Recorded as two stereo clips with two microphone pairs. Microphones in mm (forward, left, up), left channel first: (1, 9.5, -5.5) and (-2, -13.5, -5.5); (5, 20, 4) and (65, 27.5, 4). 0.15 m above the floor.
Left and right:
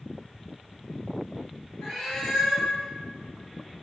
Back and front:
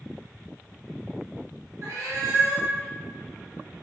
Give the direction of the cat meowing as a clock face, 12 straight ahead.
11 o'clock.